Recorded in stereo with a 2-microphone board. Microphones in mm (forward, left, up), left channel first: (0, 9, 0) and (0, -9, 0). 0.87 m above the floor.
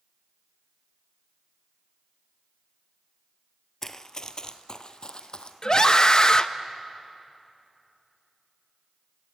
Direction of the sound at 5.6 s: 40° left (ahead or behind).